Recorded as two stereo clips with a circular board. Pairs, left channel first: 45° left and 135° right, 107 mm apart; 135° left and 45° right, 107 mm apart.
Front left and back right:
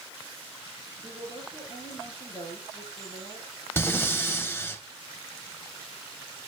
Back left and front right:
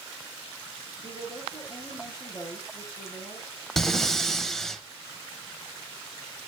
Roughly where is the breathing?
Ahead left.